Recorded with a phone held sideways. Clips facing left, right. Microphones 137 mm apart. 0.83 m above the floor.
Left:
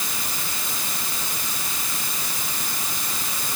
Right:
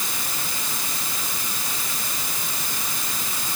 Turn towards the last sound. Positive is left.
No sound to turn to.